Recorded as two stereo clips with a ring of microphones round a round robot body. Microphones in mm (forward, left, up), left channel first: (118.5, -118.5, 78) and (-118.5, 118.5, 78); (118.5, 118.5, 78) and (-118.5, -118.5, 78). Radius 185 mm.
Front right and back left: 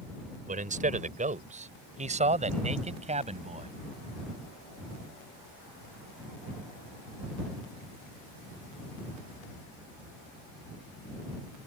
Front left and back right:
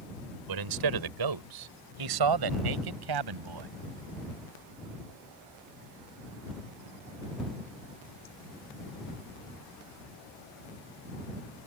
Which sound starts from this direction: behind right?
A man speaking, at 0.5 s.